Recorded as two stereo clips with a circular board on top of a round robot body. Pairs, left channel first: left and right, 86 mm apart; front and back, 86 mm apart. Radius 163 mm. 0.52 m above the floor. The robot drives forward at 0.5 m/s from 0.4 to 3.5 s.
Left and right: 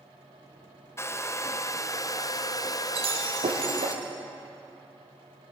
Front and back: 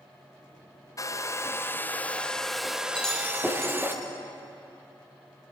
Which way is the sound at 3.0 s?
85° right.